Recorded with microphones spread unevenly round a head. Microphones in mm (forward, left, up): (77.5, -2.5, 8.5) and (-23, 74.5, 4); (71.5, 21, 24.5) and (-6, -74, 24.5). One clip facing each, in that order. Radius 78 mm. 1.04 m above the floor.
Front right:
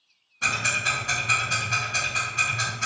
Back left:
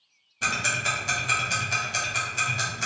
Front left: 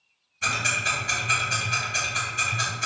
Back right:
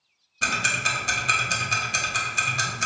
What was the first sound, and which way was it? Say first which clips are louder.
Ticking: even, back right 1 dB; 165° right.